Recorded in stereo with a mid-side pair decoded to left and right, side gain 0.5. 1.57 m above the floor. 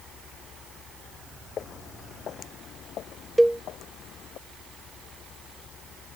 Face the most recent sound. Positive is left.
turn(degrees=-5)